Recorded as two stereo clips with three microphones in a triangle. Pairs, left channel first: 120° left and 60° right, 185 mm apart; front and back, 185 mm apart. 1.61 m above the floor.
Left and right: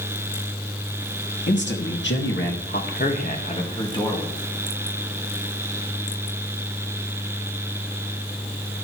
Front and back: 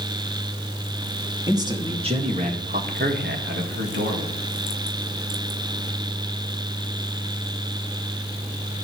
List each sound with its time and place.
1.5 s a man speaking: 110° left, 2.5 m; by 4.3 s 165° right, 2.5 m